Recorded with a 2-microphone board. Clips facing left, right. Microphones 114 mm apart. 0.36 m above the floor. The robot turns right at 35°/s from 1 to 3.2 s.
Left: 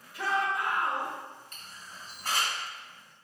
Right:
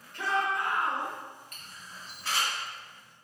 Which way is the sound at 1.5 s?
30° left (ahead or behind).